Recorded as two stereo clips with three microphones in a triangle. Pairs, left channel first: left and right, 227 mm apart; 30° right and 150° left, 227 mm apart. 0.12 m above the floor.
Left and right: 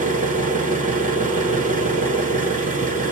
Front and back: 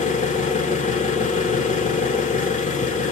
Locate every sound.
0.0 s an engine running: 65° right, 1.1 m